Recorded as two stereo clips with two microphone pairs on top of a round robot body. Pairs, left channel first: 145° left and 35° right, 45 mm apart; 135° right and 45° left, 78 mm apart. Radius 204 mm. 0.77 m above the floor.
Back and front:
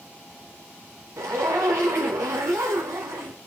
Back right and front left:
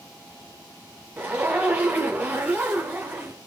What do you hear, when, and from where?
1.2 s a zipper: 30° right, 0.7 m